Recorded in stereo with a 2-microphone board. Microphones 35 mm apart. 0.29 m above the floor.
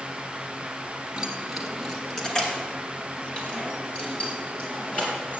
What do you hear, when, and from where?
1.2 s keys jangling: 15° right (ahead or behind), 1.6 m; by 5.4 s 40° left (ahead or behind), 4.5 m